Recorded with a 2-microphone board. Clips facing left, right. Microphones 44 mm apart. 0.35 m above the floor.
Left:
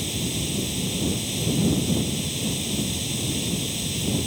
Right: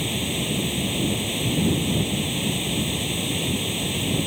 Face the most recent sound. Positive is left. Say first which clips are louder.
# right 3 dB
turn(degrees=-30)  # may be behind; listen again after turning